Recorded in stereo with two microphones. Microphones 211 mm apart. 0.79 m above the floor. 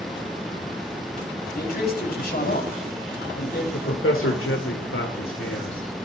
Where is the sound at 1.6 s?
45° left (ahead or behind), 5.5 m.